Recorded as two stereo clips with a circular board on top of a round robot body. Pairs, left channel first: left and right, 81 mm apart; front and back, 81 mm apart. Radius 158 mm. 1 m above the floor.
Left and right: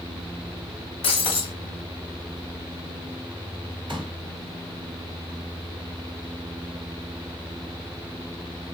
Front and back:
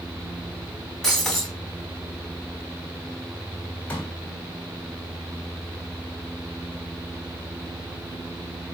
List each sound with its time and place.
1.0 s breaking glass: 90° left, 1.6 m
3.9 s a pop: 70° right, 2.5 m